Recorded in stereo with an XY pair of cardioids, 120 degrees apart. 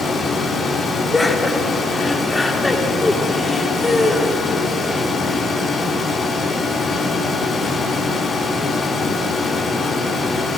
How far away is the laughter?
About 1.5 m.